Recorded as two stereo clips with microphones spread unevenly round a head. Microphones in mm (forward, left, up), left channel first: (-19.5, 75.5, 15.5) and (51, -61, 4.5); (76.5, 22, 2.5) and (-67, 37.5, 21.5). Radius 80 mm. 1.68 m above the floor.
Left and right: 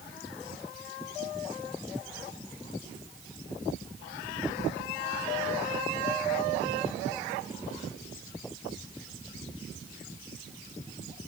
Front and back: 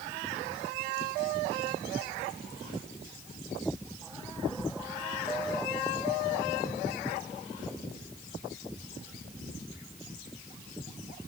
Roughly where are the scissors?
I don't hear scissors.